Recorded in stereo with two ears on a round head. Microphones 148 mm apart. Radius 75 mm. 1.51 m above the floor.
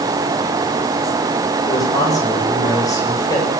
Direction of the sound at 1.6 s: 20° left (ahead or behind).